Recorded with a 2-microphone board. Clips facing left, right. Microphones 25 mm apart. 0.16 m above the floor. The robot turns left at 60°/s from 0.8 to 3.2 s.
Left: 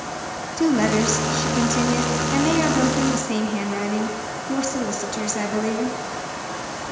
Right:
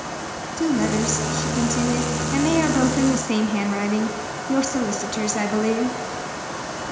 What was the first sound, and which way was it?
A woman speaking, 20° left (ahead or behind).